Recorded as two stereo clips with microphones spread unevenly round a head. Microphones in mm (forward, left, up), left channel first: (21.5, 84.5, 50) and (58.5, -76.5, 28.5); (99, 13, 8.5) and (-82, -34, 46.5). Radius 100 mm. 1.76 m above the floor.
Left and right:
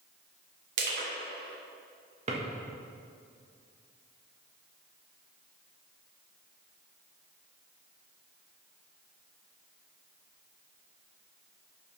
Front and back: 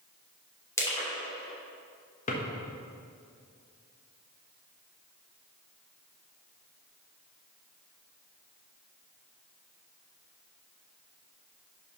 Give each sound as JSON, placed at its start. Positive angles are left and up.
{"t": 0.8, "sound": "crushing", "azimuth_deg": -65, "distance_m": 3.0}
{"t": 2.3, "sound": "a drawer", "azimuth_deg": -35, "distance_m": 1.2}